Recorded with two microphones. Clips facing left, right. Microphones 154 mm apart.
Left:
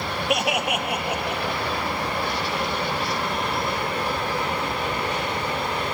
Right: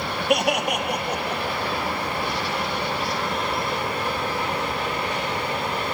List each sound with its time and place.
0.3 s laughter: centre (ahead or behind), 3 m; by 1.6 s 10° left (ahead or behind), 4 m